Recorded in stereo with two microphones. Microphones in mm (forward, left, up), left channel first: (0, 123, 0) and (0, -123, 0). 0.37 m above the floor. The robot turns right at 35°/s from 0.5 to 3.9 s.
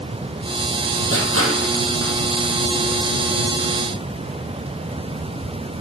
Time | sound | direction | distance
1.1 | crushing | 50° right (ahead or behind) | 3 m